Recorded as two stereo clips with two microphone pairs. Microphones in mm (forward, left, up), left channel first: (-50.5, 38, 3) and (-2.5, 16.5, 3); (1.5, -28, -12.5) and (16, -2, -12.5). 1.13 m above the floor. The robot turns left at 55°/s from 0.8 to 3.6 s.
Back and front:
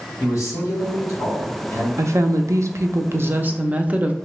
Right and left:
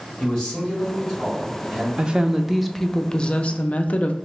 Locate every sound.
0.2 s a man speaking: 165° left, 2 m; by 1.9 s 105° left, 2 m
2.0 s a woman speaking: 5° left, 0.5 m; by 4.2 s 85° right, 0.5 m